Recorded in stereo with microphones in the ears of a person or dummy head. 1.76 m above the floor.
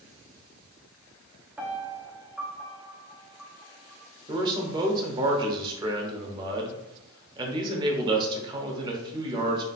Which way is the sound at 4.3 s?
25° right (ahead or behind).